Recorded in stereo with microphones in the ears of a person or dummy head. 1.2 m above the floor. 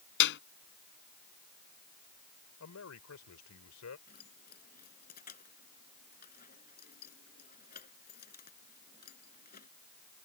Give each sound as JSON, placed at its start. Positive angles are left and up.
{"t": 0.2, "sound": "a clap", "side_deg": 55}
{"t": 2.6, "sound": "a man speaking", "side_deg": 85}
{"t": 4.1, "sound": "keys jangling", "side_deg": 45}